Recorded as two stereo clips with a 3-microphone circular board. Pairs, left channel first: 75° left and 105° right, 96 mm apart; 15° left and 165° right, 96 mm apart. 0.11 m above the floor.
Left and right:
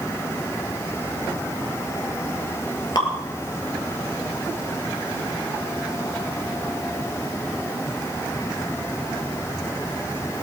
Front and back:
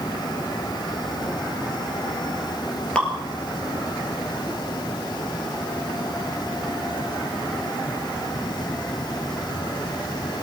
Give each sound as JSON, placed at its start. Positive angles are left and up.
{"t": 3.0, "sound": "dripping", "azimuth_deg": 90, "distance_m": 2.0}